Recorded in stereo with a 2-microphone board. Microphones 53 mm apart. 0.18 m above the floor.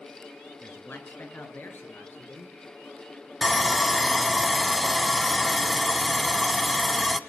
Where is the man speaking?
40° left (ahead or behind), 2.5 m; by 2.5 s 45° left (ahead or behind), 4.5 m.